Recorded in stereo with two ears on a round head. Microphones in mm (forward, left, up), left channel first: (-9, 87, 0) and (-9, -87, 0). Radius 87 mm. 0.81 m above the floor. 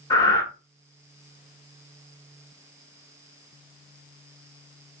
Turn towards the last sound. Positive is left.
turn(degrees=20)  # may be behind; listen again after turning